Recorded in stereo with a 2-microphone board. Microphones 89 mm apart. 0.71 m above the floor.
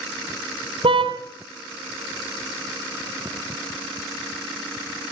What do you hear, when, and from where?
0.8 s a car horn: 80° right, 2.5 m